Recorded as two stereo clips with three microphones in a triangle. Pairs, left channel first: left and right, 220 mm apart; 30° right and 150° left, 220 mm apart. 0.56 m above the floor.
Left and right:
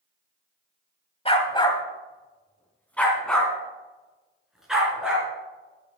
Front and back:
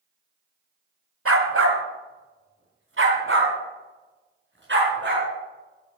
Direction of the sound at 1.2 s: 150° left.